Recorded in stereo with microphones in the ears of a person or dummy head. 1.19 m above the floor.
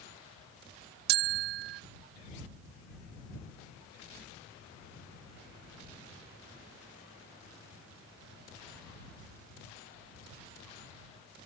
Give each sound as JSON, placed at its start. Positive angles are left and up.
{"t": 1.1, "sound": "a bell", "side_deg": -55}